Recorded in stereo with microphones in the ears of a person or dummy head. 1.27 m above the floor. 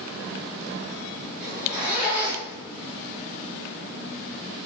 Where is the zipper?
35° left (ahead or behind), 0.9 m.